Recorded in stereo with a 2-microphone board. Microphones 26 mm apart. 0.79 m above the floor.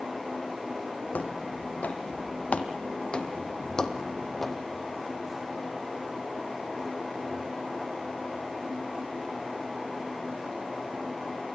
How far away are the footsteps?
About 3 m.